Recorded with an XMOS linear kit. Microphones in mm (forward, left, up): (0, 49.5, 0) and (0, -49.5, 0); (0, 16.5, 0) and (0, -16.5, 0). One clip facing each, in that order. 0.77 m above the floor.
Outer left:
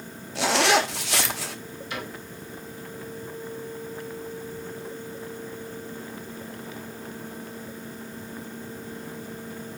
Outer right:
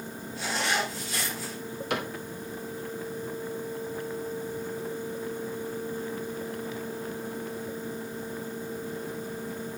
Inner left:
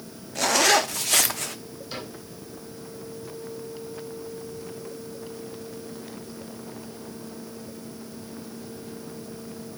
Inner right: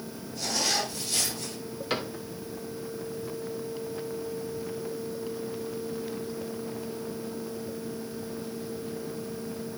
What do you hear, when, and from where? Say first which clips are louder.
0.3 s a zipper: outer left 8 dB, inner left 9 dB; 75° left (ahead or behind), 0.6 m
1.9 s a cupboard door: outer right 4 dB, inner right 6 dB; 65° right (ahead or behind), 2 m